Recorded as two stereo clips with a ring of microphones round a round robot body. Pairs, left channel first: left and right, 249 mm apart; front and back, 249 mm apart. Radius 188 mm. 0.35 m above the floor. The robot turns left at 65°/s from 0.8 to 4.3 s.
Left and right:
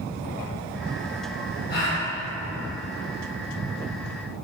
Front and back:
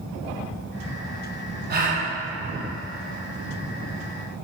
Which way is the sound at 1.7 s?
140° left.